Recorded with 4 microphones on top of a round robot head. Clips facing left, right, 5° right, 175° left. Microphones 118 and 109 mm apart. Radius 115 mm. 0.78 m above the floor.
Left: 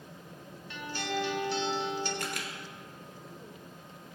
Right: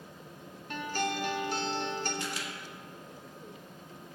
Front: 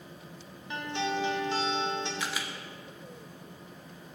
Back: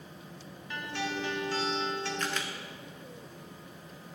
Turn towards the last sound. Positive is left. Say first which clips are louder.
# even, back 1 dB
turn(degrees=75)